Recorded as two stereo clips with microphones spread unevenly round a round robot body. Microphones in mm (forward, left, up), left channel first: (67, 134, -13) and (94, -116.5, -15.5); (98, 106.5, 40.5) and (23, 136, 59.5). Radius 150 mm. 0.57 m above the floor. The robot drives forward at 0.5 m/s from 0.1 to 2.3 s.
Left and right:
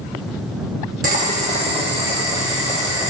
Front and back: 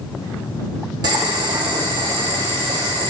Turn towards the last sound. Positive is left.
turn(degrees=-160)